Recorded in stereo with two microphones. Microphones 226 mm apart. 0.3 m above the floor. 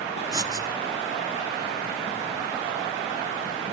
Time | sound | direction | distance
0.3 | writing | 15° right (ahead or behind) | 1.4 m